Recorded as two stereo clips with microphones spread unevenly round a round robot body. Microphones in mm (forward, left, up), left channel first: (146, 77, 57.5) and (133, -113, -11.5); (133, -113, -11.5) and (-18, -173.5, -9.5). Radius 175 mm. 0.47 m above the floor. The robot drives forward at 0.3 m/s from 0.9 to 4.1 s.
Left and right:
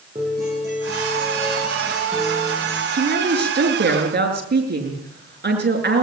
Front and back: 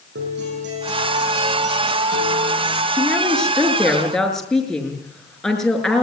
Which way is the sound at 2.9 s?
60° right.